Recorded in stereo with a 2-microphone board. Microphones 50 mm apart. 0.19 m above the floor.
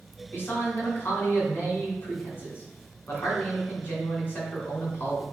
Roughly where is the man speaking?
Left.